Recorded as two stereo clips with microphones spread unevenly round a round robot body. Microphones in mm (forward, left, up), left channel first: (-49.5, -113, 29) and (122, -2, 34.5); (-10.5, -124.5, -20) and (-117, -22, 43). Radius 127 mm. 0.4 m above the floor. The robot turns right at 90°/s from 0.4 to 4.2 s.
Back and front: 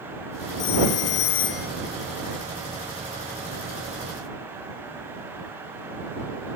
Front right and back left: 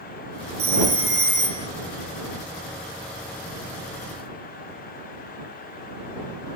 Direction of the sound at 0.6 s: 160° left.